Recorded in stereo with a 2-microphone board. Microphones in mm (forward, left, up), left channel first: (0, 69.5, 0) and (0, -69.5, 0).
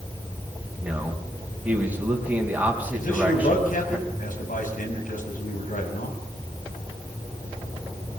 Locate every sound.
0.8 s a man speaking: 10° right (ahead or behind), 4 m
3.0 s a man speaking: 80° left, 6 m